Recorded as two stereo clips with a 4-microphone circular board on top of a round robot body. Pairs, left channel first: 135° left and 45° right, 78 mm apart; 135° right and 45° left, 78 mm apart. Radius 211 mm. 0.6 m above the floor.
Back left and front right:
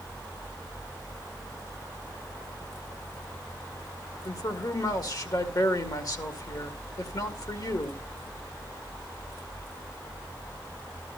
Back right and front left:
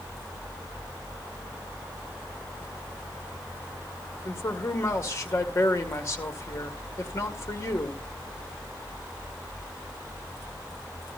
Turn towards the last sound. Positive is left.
turn(degrees=170)